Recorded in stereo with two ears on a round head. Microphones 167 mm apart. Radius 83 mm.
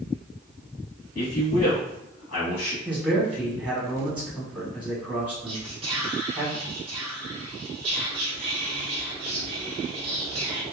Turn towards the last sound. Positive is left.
turn(degrees=-30)  # may be behind; listen again after turning